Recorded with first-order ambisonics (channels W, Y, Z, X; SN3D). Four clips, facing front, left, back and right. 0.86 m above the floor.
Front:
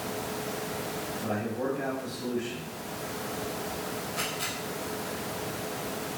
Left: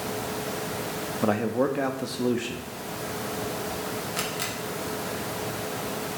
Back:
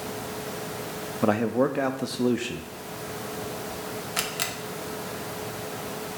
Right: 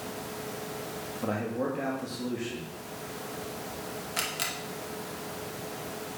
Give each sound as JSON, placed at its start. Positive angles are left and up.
{"t": 1.2, "sound": "a man speaking", "azimuth_deg": 145, "distance_m": 0.8}
{"t": 4.2, "sound": "a camera shutter", "azimuth_deg": -175, "distance_m": 1.0}